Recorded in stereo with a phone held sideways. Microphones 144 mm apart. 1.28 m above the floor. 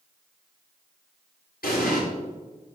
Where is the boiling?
I don't hear boiling.